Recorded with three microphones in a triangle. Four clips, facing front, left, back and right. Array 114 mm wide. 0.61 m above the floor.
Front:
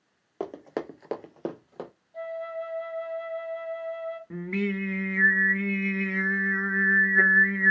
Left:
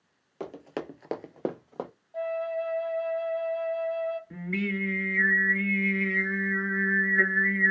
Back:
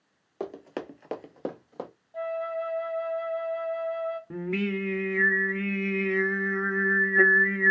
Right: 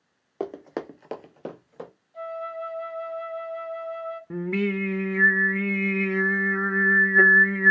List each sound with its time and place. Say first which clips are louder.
0.4 s running footsteps: right 4 dB, front 2 dB; 70° right, 0.7 m; by 1.9 s 90° left, 1.0 m
2.1 s a flute: left 3 dB, back 3 dB; 110° left, 0.8 m
4.3 s singing: right 6 dB, front 3 dB; 105° right, 0.5 m